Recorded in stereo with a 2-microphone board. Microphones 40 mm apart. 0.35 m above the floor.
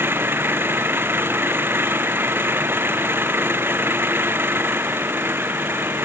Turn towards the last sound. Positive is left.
turn(degrees=-70)  # may be behind; listen again after turning